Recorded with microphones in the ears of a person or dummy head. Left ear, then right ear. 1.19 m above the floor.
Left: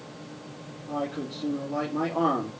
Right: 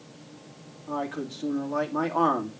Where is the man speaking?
55° right (ahead or behind), 2.5 m.